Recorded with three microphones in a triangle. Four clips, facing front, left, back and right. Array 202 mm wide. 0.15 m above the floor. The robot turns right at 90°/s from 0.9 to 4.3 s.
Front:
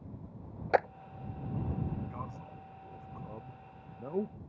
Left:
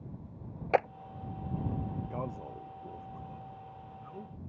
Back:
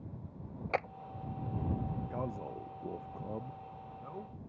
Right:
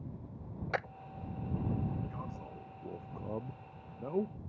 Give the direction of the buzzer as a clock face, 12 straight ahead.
I don't hear a buzzer.